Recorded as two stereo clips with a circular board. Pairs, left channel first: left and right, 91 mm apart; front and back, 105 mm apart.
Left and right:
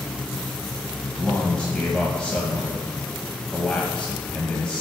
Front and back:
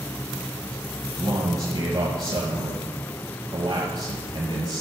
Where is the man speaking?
165° left, 1.3 m.